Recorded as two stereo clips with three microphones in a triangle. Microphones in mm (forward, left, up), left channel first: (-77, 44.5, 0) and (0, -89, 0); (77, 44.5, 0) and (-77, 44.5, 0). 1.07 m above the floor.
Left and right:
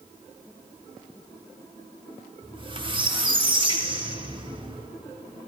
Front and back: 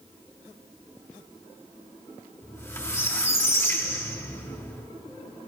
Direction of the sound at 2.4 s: 60° right.